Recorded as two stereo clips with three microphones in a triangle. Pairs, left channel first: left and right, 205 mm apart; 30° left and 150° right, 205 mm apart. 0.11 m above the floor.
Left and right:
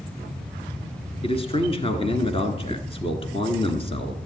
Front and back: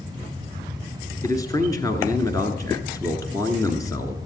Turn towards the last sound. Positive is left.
turn(degrees=80)